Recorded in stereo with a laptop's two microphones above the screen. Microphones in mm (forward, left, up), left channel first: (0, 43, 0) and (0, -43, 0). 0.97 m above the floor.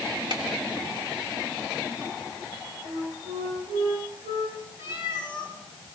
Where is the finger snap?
60° right (ahead or behind), 2.5 m.